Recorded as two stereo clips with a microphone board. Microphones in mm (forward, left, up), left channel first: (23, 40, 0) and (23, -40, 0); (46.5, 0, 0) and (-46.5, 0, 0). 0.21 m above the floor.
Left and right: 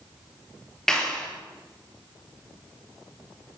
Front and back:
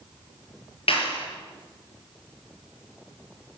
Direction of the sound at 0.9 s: 5° left.